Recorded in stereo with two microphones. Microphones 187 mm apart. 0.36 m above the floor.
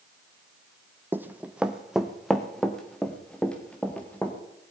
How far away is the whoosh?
I don't hear a whoosh.